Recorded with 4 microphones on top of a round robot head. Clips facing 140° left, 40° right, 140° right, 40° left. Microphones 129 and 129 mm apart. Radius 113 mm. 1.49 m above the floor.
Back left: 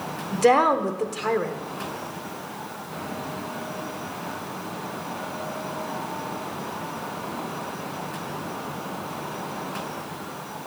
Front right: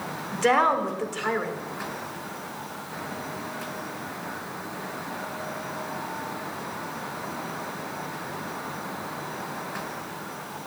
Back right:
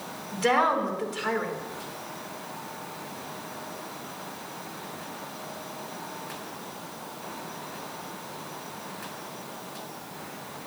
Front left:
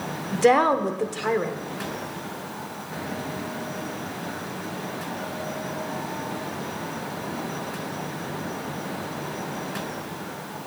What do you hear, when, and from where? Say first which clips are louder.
0.3 s a woman speaking: back left 4 dB, front left 6 dB; 85° left, 1.4 m